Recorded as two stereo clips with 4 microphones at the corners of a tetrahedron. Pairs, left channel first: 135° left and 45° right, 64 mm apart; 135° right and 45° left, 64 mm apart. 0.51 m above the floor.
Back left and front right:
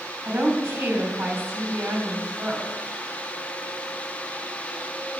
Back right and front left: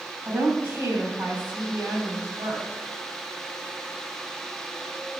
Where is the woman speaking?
Straight ahead, 3.5 m.